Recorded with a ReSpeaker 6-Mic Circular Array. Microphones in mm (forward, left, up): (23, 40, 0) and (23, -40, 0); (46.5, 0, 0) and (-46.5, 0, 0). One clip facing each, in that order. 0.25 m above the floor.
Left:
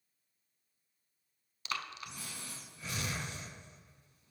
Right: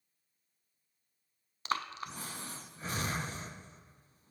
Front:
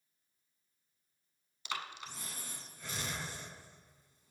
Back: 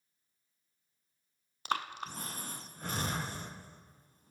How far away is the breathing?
About 0.6 m.